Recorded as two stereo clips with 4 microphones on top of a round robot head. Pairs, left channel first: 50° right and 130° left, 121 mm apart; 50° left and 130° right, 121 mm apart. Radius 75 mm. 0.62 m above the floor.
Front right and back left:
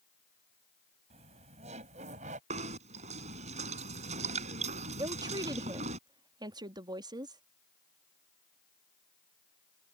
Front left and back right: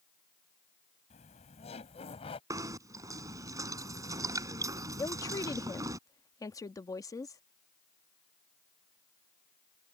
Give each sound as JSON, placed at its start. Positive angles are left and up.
{"t": 1.1, "sound": "laughter", "azimuth_deg": 85}
{"t": 2.5, "sound": "knocking", "azimuth_deg": 165}
{"t": 5.0, "sound": "a woman speaking", "azimuth_deg": 95}